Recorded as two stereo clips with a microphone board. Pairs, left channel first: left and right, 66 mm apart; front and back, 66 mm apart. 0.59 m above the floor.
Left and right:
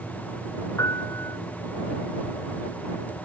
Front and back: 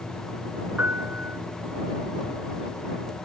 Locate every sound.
0.8 s a piano: 120° left